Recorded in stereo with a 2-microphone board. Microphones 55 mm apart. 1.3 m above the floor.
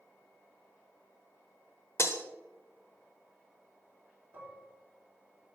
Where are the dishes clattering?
35° right (ahead or behind), 2.5 m.